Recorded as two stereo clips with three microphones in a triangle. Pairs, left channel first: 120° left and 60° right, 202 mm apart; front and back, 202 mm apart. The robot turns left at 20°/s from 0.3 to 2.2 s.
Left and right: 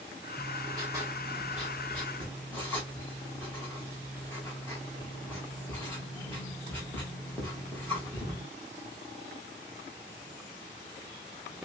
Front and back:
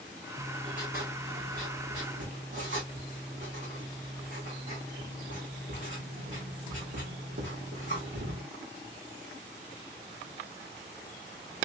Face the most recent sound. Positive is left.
turn(degrees=-160)